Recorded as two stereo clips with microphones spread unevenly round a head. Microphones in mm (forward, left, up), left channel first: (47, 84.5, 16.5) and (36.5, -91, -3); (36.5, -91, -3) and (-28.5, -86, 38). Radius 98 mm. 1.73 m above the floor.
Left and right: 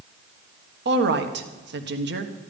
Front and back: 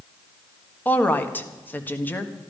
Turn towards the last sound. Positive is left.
turn(degrees=-70)